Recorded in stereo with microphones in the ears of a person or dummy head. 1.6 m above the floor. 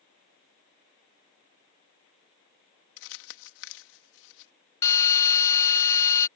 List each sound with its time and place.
3.0 s crumpling: 75° left (ahead or behind)
4.8 s a drill: 15° left (ahead or behind)